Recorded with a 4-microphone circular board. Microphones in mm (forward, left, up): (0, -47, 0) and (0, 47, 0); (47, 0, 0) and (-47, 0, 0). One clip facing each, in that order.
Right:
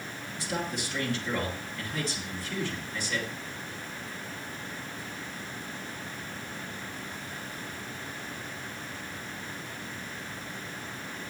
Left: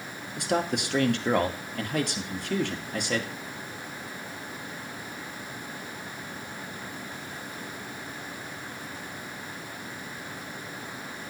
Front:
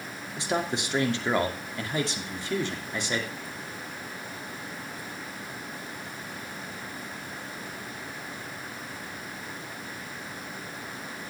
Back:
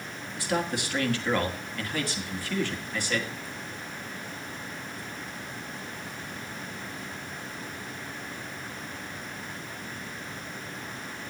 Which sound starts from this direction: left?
A man speaking, at 0.4 s.